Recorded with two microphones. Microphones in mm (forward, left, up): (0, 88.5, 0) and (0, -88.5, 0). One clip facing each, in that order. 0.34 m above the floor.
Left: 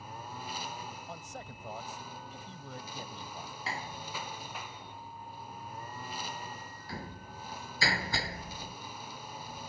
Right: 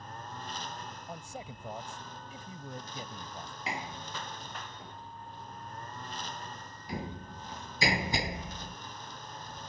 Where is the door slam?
20° right (ahead or behind).